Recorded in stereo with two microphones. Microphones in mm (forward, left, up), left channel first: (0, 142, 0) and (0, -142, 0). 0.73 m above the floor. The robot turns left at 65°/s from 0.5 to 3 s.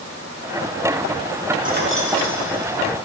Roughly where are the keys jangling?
Right.